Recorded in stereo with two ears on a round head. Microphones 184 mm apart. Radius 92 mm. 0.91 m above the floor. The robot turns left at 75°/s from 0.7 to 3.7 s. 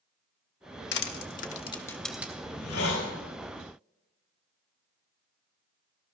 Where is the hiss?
105° left, 3 m; by 3.1 s 50° left, 3 m.